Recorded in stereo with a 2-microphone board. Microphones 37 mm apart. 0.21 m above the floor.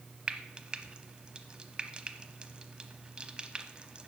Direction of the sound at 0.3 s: 25° right (ahead or behind).